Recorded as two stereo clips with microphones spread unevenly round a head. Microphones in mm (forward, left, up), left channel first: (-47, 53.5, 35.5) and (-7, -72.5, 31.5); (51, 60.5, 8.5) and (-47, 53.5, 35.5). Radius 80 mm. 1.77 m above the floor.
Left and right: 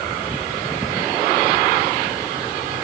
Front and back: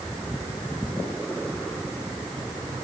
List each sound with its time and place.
Only background noise.